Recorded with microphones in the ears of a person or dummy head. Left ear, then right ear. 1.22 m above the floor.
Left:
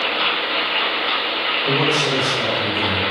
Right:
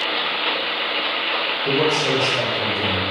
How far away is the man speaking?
About 1.3 m.